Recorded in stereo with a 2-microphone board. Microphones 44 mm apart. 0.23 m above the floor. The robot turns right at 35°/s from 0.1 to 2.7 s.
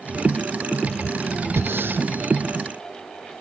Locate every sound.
1.6 s breathing: 65° right (ahead or behind); by 2.1 s 45° right (ahead or behind)